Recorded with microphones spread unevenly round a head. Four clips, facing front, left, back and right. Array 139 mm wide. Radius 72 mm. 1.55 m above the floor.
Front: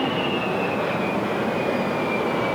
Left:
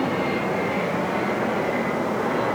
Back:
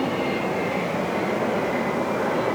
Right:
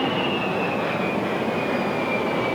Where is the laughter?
No laughter in this recording.